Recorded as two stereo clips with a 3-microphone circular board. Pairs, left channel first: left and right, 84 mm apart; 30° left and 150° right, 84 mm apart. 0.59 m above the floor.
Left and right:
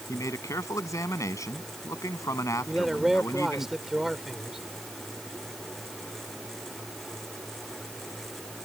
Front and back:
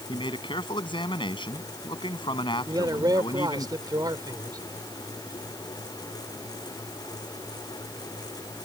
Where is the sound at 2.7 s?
175° right.